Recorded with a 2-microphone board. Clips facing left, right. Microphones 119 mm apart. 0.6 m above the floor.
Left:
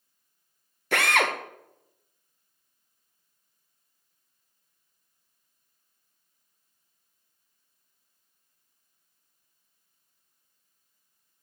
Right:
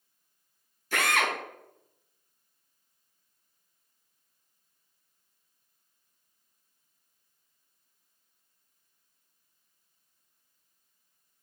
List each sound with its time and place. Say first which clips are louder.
0.9 s a drill: left 3 dB; 75° left (ahead or behind), 0.9 m